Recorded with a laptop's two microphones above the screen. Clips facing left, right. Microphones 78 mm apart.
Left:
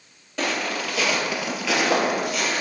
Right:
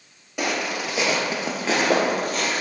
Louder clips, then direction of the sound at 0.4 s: Even; 10° right (ahead or behind).